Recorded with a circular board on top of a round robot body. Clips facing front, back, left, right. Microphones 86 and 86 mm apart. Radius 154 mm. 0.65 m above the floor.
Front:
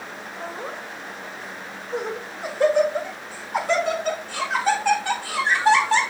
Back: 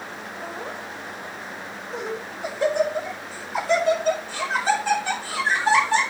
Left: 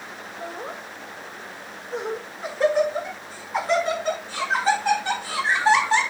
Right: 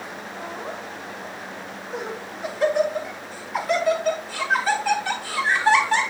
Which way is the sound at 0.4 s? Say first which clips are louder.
Front 1 dB, even; 40° left.